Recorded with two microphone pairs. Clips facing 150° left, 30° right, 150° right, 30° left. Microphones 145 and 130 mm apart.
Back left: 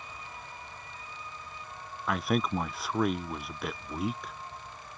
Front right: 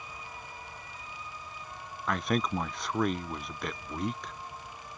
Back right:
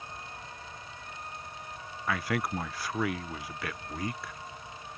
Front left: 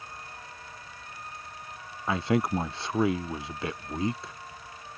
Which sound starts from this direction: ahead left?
A man speaking, at 2.1 s.